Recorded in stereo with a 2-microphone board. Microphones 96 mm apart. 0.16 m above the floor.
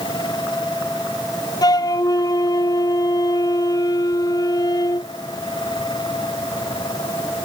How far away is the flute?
About 0.8 m.